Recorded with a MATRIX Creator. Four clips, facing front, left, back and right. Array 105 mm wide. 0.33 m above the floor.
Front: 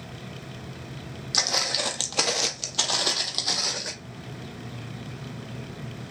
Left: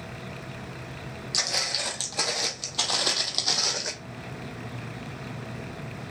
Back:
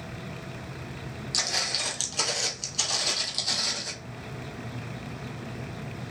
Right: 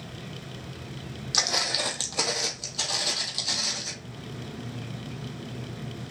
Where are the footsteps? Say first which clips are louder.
Right 4 dB, front 6 dB; 45° right, 0.7 m; by 3.9 s 65° left, 0.9 m.